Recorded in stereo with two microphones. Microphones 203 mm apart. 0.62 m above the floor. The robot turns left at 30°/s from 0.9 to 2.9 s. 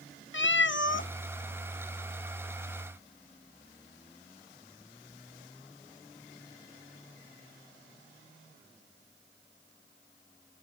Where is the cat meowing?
70° left (ahead or behind), 0.5 m.